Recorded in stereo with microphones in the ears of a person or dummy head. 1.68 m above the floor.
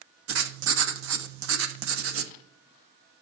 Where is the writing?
70° right (ahead or behind), 1.2 m.